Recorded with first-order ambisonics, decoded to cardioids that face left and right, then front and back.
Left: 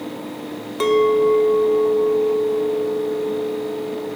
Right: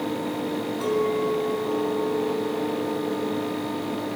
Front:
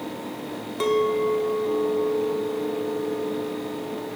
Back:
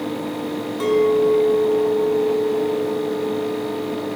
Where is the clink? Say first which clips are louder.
Left 10 dB, back 5 dB; 80° left, 1.5 m.